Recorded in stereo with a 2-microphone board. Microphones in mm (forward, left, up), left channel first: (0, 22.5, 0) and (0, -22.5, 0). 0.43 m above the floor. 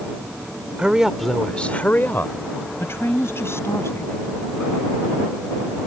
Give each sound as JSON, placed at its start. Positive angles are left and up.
{"t": 0.8, "sound": "a woman speaking", "side_deg": -25}